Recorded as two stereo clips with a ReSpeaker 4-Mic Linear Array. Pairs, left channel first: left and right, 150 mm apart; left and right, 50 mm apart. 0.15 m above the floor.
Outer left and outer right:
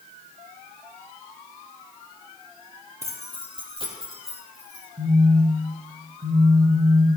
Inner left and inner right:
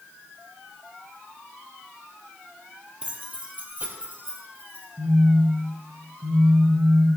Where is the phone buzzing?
55° right (ahead or behind), 4 m.